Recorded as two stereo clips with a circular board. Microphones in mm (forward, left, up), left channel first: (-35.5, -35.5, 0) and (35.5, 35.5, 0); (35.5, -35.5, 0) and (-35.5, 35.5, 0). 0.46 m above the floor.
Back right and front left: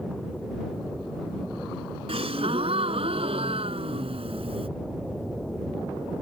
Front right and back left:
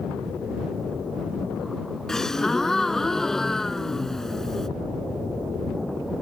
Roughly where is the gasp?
Ahead left.